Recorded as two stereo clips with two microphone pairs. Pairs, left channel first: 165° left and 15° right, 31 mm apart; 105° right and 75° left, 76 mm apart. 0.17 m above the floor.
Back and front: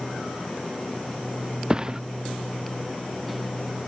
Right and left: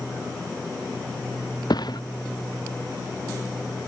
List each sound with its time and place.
1.7 s a thud: 80° right